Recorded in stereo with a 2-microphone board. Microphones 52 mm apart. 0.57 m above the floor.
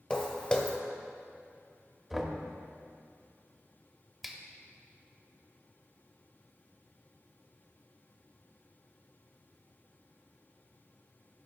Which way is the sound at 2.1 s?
5° right (ahead or behind).